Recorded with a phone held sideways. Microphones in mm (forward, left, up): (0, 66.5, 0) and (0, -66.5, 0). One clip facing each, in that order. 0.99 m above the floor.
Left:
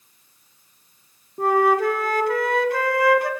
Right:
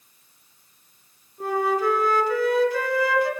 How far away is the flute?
About 2 m.